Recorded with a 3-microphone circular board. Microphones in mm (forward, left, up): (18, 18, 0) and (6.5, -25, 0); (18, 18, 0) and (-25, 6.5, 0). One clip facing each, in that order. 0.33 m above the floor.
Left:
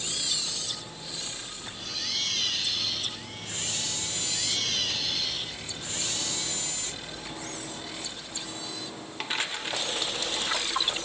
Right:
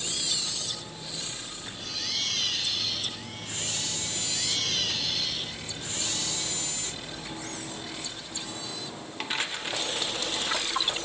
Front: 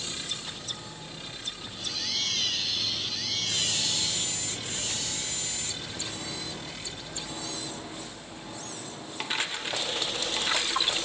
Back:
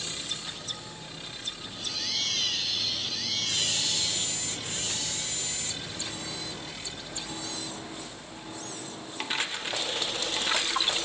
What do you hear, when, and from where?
Only background noise.